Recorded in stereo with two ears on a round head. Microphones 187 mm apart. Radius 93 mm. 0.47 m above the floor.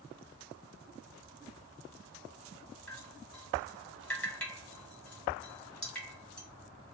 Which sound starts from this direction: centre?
Dripping, at 2.9 s.